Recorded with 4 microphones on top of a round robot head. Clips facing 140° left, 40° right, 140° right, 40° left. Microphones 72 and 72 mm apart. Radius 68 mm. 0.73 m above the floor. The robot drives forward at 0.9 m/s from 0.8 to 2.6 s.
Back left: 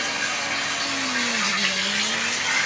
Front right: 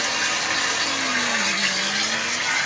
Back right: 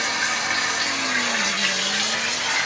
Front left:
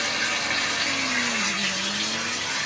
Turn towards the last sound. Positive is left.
turn(degrees=-135)